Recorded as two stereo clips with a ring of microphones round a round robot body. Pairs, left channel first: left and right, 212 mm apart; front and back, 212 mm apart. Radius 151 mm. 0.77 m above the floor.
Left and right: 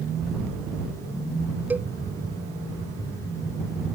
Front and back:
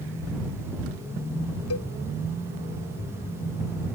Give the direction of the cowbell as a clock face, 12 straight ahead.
12 o'clock.